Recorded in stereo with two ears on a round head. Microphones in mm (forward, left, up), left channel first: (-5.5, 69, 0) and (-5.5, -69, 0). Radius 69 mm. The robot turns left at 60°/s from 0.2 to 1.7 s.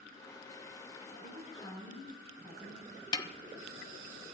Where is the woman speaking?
60° left, 6 m; by 3.0 s 25° left, 6 m.